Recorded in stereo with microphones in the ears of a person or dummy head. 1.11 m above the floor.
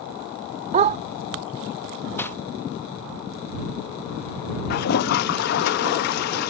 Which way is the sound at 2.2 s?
10° left (ahead or behind).